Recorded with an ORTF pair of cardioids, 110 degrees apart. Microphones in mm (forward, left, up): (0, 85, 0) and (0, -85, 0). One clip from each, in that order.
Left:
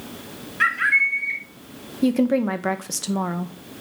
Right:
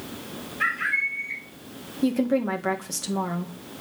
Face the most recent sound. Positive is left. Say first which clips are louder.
# left 3 dB
turn(degrees=25)